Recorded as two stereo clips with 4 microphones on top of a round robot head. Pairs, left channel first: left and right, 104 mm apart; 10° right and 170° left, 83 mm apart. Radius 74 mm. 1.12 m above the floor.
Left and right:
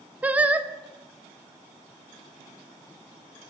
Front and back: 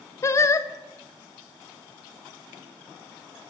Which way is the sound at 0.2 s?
25° right.